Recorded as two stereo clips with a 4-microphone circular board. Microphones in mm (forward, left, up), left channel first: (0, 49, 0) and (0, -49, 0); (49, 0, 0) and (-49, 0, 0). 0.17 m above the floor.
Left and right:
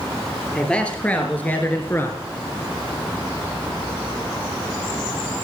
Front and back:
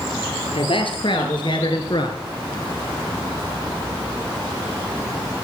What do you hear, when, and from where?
0.5 s a man speaking: 10° left, 3.5 m; by 2.2 s 30° left, 3 m